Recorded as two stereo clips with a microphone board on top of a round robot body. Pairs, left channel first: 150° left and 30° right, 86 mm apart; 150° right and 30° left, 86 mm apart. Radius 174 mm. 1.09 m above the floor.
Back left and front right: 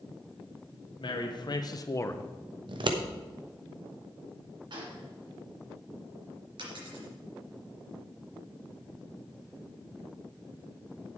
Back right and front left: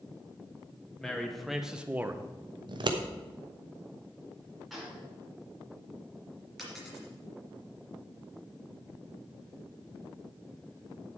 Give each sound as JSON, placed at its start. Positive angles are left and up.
{"t": 1.0, "sound": "a man speaking", "azimuth_deg": 125, "distance_m": 2.5}
{"t": 2.7, "sound": "scissors", "azimuth_deg": 0, "distance_m": 1.2}
{"t": 4.7, "sound": "a gunshot", "azimuth_deg": -60, "distance_m": 4.5}
{"t": 6.6, "sound": "a dropped coin", "azimuth_deg": -60, "distance_m": 3.5}